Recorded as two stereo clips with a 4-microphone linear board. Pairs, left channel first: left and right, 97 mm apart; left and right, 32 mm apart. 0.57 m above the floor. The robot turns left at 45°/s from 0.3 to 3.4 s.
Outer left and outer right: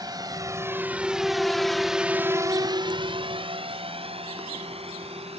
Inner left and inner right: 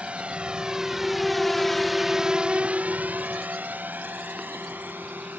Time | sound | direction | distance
0.0 | a drone | 40° right (ahead or behind) | ?